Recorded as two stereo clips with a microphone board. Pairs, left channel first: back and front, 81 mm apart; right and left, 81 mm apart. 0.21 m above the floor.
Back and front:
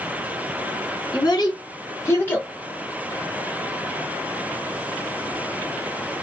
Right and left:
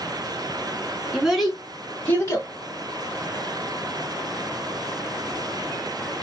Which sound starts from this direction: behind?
A child speaking, at 1.1 s.